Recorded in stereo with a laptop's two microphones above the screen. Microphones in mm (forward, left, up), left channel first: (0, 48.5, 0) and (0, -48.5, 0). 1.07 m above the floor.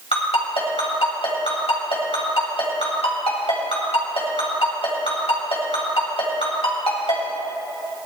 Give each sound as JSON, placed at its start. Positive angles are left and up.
{"t": 0.1, "sound": "a ringtone", "side_deg": 85, "distance_m": 3.5}